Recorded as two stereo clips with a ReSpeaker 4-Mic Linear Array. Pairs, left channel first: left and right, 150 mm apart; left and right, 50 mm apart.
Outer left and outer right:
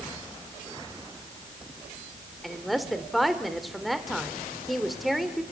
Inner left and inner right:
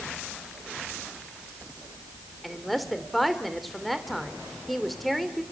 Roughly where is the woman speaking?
Centre.